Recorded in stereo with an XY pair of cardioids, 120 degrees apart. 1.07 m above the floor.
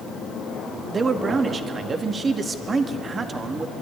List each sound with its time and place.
0.9 s a man speaking: 35° right, 1.8 m